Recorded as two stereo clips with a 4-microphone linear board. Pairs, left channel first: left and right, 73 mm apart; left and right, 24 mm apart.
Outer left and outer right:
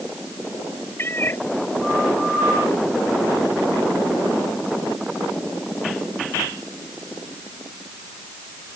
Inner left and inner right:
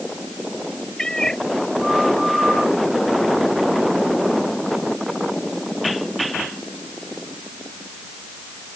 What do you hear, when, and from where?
1.0 s a cat meowing: 30° left (ahead or behind)